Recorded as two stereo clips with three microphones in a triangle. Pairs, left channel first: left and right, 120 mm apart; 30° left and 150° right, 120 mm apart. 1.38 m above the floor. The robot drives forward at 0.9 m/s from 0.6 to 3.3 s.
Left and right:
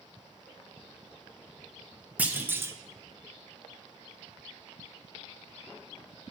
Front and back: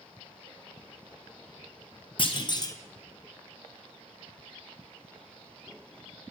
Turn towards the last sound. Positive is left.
turn(degrees=-95)